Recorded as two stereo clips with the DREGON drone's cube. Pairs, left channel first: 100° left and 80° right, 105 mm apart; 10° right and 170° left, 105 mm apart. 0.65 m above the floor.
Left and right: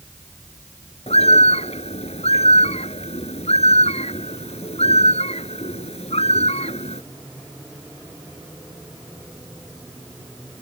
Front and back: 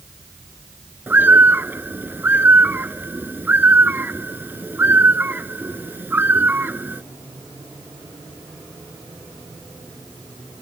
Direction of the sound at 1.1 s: 100° left.